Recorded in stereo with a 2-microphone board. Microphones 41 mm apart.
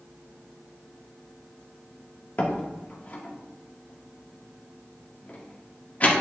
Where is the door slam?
40° left (ahead or behind), 1.6 m.